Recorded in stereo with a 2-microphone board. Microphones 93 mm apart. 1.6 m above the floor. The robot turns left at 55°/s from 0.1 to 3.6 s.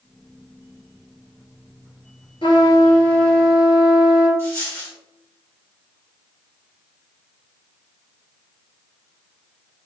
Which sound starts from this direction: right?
A dropped coin, at 4.4 s.